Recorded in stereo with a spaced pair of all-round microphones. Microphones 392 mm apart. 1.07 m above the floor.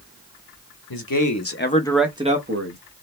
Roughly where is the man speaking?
Left.